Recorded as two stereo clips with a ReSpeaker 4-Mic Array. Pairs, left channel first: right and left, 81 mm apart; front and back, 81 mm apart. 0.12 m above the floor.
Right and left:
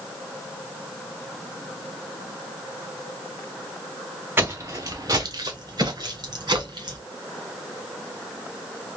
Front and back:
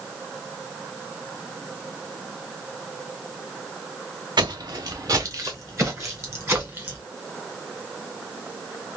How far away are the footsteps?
About 0.6 m.